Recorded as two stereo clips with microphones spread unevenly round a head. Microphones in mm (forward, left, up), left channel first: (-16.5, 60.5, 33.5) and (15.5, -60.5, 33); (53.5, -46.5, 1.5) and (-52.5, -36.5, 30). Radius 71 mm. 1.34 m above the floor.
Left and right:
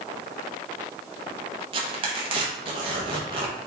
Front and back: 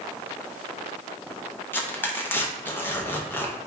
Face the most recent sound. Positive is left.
turn(degrees=-85)